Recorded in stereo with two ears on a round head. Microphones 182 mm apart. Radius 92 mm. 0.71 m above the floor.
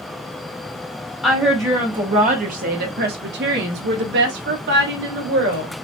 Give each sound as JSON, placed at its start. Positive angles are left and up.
{"t": 1.2, "sound": "a woman speaking", "side_deg": -5, "distance_m": 0.9}